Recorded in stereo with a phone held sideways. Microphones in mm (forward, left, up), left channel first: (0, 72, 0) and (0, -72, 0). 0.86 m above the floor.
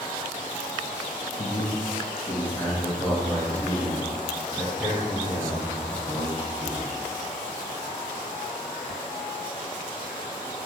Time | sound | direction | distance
1.4 | a man speaking | 50° left (ahead or behind) | 0.6 m